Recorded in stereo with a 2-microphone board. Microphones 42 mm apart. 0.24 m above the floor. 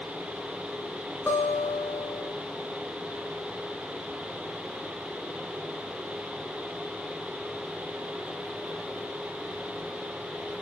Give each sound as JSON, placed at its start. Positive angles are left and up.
{"t": 1.3, "sound": "a guitar", "side_deg": 55, "distance_m": 1.8}